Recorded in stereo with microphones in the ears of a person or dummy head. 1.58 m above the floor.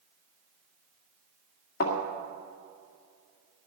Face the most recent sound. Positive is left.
turn(degrees=45)  # may be behind; listen again after turning